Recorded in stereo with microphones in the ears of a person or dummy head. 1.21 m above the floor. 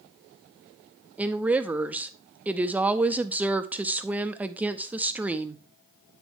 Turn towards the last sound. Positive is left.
turn(degrees=-10)  # may be behind; listen again after turning